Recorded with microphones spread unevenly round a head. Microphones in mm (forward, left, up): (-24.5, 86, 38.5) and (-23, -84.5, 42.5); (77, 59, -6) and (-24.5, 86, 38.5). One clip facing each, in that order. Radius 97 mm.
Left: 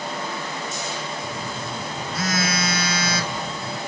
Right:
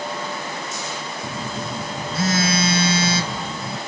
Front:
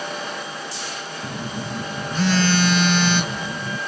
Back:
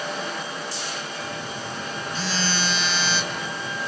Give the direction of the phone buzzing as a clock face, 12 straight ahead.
1 o'clock.